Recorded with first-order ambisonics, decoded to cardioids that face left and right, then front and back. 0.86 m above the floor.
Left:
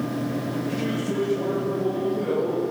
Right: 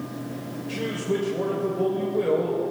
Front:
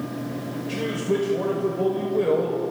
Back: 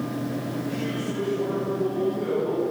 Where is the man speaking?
30° right, 3 m.